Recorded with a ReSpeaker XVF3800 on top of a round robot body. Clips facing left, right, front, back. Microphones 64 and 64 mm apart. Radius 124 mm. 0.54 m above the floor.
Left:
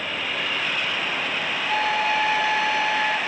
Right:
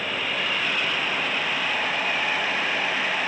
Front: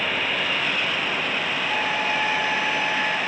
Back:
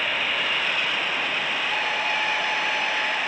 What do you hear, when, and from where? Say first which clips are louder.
1.7 s a flute: left 4 dB, front 3 dB; 70° left